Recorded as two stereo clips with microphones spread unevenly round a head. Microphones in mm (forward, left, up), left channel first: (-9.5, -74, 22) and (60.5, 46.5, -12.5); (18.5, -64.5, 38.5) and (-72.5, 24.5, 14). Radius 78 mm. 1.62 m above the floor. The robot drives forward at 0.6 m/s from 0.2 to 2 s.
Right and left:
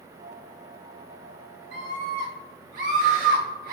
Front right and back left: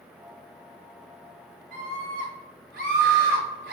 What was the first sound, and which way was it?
A scream, 125° left.